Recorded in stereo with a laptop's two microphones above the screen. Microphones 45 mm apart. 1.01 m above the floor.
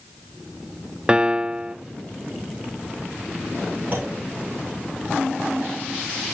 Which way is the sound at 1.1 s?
20° right (ahead or behind).